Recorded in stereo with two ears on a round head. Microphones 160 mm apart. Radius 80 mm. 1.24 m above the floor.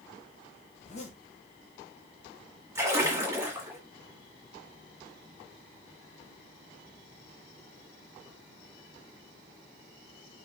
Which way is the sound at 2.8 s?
15° right (ahead or behind).